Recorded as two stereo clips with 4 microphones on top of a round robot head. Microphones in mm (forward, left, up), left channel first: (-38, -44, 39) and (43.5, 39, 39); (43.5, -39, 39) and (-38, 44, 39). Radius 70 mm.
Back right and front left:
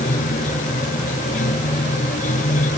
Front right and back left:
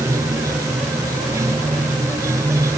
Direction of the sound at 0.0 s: 160° right.